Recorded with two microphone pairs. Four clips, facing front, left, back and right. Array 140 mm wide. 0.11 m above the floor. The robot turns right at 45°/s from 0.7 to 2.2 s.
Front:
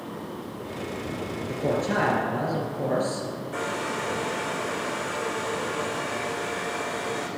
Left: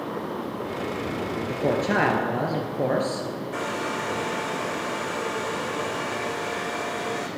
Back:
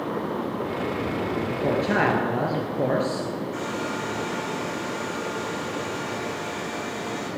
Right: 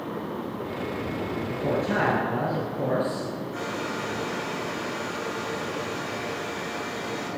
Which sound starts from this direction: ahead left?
A hair dryer, at 3.5 s.